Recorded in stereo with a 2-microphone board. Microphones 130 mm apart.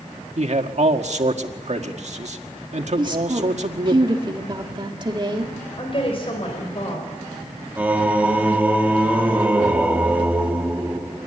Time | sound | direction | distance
0.4 | a man speaking | 60° right (ahead or behind) | 1.7 m
3.0 | a woman speaking | 35° right (ahead or behind) | 2 m
5.8 | a woman speaking | 45° left (ahead or behind) | 4.5 m
7.8 | singing | 10° right (ahead or behind) | 1.6 m